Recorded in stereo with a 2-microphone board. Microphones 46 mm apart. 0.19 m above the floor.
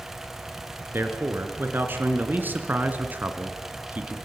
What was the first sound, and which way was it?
A man speaking, 50° right (ahead or behind).